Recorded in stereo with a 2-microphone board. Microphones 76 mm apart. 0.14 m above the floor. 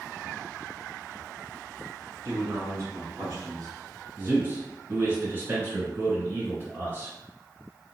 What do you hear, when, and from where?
2.2 s a man speaking: 35° right (ahead or behind), 1.3 m; by 3.7 s 60° right (ahead or behind), 2.0 m
4.2 s a man speaking: 30° right (ahead or behind), 1.8 m